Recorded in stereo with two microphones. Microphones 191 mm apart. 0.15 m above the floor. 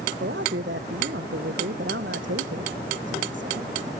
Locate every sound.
0.2 s a man speaking: 75° right (ahead or behind)